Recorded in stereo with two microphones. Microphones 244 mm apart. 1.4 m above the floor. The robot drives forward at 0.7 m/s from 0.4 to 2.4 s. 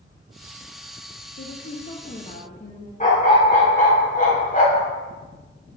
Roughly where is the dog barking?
Left.